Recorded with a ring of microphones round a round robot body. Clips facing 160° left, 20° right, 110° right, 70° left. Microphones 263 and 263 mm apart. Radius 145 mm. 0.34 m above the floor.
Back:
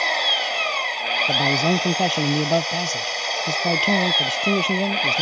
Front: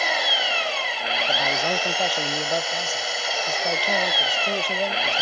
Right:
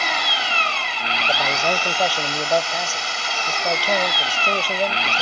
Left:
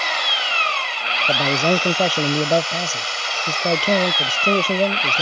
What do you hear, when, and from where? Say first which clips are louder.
0.0 s an engine running: even, right 1 dB; 110° right
1.3 s a man speaking: back 7 dB, left 6 dB; 130° left